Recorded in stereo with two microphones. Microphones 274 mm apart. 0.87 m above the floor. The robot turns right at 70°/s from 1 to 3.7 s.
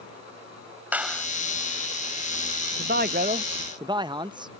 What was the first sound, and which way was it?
A clap, 5° right (ahead or behind).